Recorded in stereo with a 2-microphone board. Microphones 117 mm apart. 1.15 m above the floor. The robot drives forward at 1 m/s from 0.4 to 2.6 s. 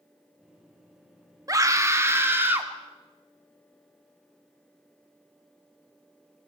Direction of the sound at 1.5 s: 30° right (ahead or behind).